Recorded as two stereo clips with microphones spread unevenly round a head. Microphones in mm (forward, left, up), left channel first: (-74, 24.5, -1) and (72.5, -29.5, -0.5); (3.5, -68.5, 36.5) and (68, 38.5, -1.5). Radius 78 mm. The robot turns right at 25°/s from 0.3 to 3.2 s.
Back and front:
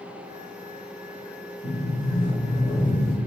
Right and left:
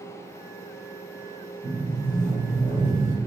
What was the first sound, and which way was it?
A sliding door, 155° right.